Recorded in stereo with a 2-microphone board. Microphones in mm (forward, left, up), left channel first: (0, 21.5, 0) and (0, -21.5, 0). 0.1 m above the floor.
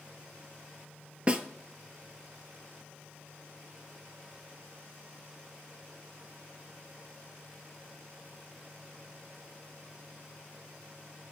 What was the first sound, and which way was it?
A snare drum, 25° right (ahead or behind).